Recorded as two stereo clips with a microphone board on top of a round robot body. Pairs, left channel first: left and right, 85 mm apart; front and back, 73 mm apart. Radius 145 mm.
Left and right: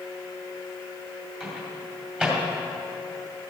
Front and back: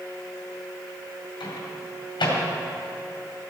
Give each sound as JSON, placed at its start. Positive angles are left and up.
{"t": 1.4, "sound": "a microwave", "azimuth_deg": -10, "distance_m": 2.5}